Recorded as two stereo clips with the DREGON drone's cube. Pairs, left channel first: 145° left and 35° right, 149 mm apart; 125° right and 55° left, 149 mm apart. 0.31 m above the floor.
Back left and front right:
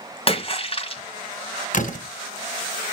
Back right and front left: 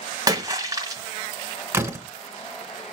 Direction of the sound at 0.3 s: 115° left.